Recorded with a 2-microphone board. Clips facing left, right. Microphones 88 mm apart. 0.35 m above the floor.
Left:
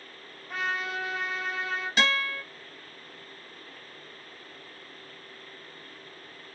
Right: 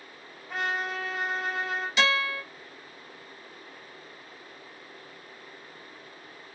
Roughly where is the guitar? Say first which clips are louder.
Right 1 dB; left.